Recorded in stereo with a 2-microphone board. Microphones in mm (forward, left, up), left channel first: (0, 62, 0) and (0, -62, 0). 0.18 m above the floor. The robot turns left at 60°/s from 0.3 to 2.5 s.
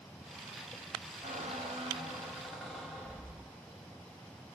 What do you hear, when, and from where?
1.2 s a squeak: 100° right, 1.2 m; by 3.5 s straight behind, 1.2 m